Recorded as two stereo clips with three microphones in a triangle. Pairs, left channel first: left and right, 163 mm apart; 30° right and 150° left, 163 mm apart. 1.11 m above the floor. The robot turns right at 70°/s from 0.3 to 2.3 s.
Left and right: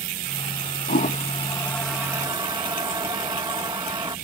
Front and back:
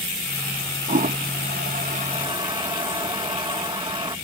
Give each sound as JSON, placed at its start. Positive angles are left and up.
{"t": 0.9, "sound": "a toilet flushing", "azimuth_deg": 110}